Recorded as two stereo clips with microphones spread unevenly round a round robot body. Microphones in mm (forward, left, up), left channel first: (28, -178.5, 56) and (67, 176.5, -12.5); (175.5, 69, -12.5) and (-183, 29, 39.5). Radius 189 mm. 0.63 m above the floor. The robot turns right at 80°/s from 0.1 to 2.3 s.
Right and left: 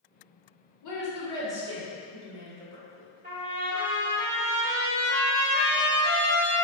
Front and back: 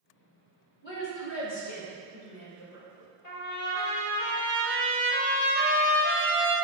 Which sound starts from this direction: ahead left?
A trumpet, at 3.2 s.